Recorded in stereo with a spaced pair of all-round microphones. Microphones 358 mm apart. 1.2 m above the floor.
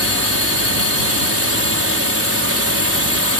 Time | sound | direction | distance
0.0 | a drone | 40° right (ahead or behind) | ?